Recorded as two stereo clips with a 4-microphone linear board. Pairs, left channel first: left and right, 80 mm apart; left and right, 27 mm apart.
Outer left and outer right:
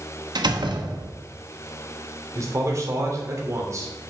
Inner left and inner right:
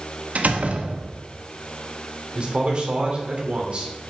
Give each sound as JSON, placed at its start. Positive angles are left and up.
{"t": 0.3, "sound": "a door slam", "side_deg": -75, "distance_m": 1.2}
{"t": 2.4, "sound": "a man speaking", "side_deg": -45, "distance_m": 3.0}